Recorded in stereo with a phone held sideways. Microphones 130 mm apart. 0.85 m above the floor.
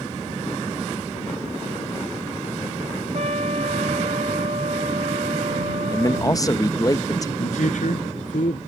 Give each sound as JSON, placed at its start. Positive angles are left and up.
{"t": 3.1, "sound": "a trumpet", "side_deg": -55}
{"t": 5.9, "sound": "a man speaking", "side_deg": 25}
{"t": 7.4, "sound": "a man speaking", "side_deg": 75}